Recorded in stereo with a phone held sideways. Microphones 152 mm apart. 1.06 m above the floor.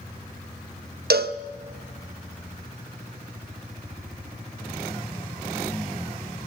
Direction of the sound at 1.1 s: 80° right.